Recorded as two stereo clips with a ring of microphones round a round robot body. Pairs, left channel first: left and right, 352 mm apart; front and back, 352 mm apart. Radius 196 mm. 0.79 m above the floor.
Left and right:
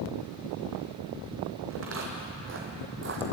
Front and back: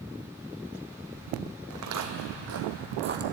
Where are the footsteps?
145° right, 1.9 m; by 3.2 s 135° right, 1.0 m.